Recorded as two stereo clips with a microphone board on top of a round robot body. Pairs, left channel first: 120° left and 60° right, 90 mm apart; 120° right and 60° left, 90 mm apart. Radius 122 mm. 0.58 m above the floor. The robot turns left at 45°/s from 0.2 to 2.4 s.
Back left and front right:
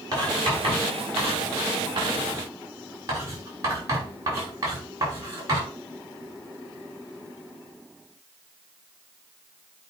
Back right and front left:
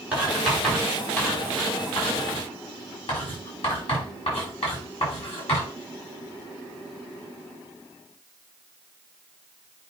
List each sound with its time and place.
0.1 s writing: 15° right, 4.5 m; by 5.7 s 110° right, 4.5 m